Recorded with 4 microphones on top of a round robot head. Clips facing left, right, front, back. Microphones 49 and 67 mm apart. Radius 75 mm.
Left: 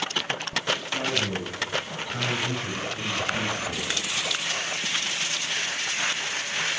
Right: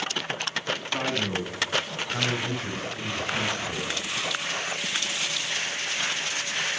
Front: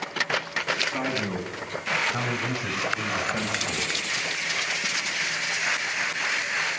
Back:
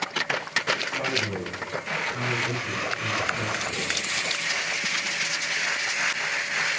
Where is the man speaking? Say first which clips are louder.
Even, even; 45° right, 4 m; by 3.9 s 25° left, 3.5 m.